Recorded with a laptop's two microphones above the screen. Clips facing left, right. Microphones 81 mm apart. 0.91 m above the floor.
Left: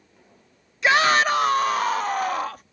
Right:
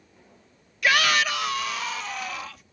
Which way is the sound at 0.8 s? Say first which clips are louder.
Left 4 dB; 20° left (ahead or behind).